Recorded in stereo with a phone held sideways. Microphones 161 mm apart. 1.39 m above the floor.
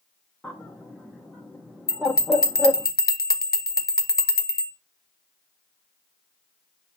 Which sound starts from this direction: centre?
A bird, at 0.4 s.